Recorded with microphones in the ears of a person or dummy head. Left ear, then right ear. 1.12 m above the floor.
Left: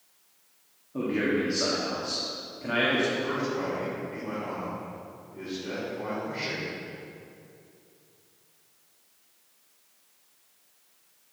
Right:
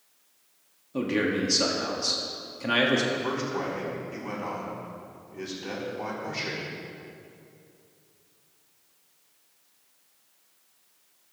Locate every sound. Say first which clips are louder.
0.9 s a man speaking: right 1 dB; 80° right, 1.6 m
3.1 s a man speaking: even; 70° right (ahead or behind), 4 m